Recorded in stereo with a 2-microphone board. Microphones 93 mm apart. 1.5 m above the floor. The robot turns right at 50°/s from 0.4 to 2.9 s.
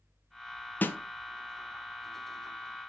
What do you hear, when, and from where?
0.8 s a snare drum: 20° left (ahead or behind), 0.6 m; by 1.0 s 25° left (ahead or behind), 0.6 m